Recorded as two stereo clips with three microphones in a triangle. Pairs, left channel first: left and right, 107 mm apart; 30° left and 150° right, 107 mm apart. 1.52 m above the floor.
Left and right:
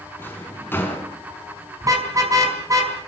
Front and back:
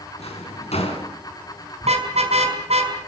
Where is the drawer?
20° left, 5.5 m.